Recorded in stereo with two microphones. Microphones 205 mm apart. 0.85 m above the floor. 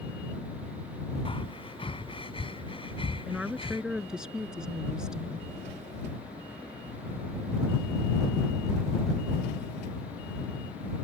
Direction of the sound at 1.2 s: 25° left (ahead or behind).